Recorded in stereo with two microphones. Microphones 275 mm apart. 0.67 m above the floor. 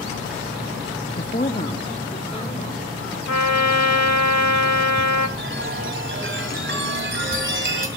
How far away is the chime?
About 1.8 m.